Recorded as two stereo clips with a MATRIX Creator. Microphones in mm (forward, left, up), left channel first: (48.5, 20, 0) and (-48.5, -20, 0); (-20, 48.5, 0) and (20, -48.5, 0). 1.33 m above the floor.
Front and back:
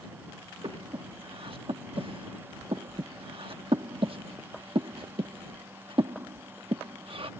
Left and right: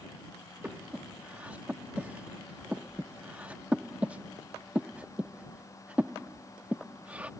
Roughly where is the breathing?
Behind right.